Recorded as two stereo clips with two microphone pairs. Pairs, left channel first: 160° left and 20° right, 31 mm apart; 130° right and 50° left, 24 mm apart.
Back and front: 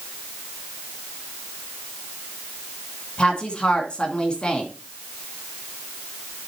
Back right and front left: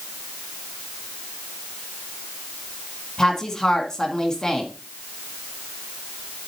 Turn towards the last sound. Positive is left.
turn(degrees=-175)